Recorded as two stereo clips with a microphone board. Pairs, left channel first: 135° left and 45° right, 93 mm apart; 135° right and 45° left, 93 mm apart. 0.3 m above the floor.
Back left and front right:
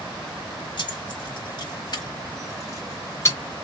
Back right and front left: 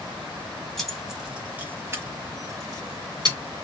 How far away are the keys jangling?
About 1.1 m.